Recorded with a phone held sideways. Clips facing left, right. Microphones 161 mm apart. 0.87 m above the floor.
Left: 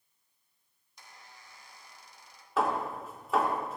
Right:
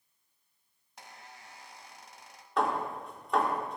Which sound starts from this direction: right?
A squeak, at 1.0 s.